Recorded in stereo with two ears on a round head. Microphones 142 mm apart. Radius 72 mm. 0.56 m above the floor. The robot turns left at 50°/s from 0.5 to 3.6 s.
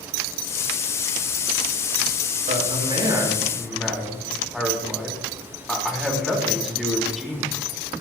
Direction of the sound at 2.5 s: 125° right.